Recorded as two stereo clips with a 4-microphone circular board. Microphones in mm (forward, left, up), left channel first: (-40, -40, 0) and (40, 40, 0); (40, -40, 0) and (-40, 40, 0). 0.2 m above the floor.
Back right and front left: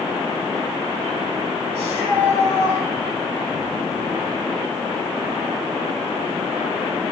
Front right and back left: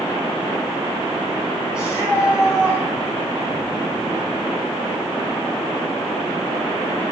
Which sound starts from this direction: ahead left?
A shout, at 1.7 s.